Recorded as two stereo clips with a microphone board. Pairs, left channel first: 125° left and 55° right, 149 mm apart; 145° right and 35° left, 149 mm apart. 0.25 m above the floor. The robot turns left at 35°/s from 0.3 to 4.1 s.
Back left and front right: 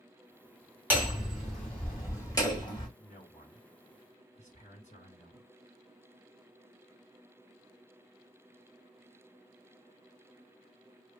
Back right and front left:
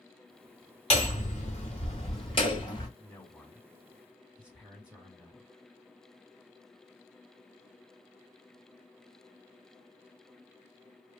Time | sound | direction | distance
0.9 | hammering | 130° right | 1.7 m
3.0 | a man speaking | 155° left | 1.8 m